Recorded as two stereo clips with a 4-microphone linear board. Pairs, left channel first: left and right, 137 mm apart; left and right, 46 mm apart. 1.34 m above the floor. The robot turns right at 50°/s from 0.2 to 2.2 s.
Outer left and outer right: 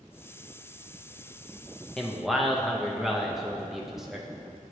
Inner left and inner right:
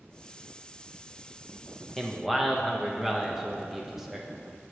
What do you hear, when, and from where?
2.0 s a man speaking: 5° left (ahead or behind), 0.5 m; by 4.3 s 5° right (ahead or behind), 0.5 m